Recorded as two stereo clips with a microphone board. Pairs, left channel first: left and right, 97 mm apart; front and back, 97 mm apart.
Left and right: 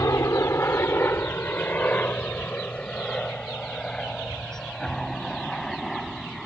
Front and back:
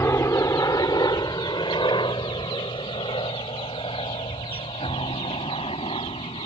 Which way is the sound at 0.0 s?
50° left.